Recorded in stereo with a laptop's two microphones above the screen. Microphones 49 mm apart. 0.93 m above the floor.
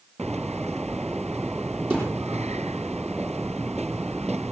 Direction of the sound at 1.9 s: 35° right (ahead or behind).